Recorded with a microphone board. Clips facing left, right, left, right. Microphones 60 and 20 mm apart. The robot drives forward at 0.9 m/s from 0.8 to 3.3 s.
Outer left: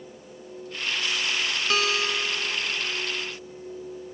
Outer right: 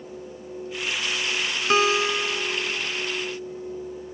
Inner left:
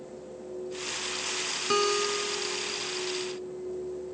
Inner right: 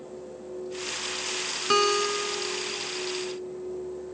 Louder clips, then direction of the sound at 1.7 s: Outer right 6 dB, inner right 4 dB; 25° right (ahead or behind).